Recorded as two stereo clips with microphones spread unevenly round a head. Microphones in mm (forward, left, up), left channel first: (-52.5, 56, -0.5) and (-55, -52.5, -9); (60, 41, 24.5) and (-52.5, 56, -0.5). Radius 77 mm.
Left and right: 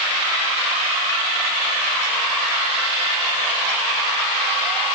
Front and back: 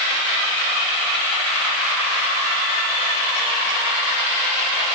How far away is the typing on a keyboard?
No typing on a keyboard in this recording.